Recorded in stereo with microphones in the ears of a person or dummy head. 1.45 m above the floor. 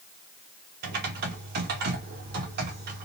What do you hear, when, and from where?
0.8 s typing on a keyboard: 50° right (ahead or behind), 1.0 m